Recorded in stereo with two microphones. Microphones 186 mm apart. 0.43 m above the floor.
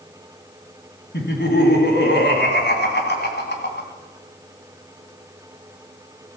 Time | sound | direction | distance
1.1 | laughter | 65° left (ahead or behind) | 3 m